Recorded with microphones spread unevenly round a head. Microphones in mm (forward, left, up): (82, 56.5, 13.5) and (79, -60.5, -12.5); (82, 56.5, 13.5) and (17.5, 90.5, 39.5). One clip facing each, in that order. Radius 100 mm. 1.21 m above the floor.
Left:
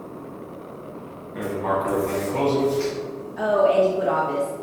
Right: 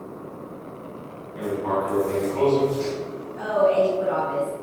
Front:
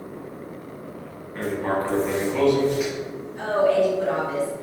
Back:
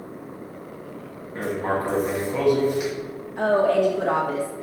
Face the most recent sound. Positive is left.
turn(degrees=125)